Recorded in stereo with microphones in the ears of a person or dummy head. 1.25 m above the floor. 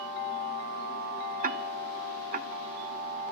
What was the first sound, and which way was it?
Ticking, 40° right (ahead or behind).